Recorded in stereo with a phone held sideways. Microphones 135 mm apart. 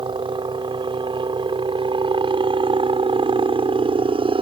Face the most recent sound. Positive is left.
turn(degrees=-40)  # may be behind; listen again after turning